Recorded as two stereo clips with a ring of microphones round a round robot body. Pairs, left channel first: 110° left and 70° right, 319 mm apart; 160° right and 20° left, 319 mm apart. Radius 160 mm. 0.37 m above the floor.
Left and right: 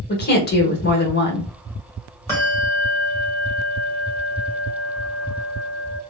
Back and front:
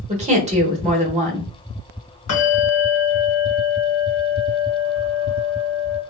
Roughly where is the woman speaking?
Left.